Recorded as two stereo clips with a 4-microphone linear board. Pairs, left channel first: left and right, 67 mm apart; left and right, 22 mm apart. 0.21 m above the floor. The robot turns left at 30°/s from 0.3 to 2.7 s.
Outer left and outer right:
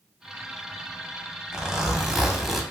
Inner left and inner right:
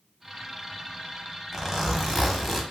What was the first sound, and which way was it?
A zipper, 10° right (ahead or behind).